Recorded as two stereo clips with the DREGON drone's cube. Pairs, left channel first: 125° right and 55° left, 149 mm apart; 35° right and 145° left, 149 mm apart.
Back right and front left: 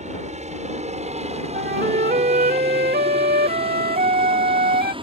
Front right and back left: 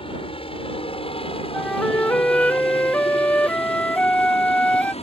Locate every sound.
0.0 s a helicopter: 15° left; by 5.0 s 5° left
1.5 s a flute: 45° left